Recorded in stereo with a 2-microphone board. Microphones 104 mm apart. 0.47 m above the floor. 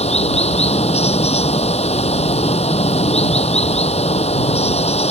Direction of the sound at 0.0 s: 85° left.